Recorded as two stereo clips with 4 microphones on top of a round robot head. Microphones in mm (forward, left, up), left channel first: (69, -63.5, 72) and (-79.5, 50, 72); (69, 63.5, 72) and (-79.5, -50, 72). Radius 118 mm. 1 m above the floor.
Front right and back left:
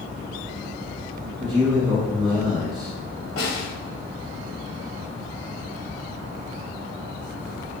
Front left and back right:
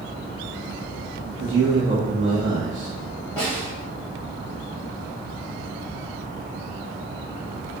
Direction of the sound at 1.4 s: 150° right.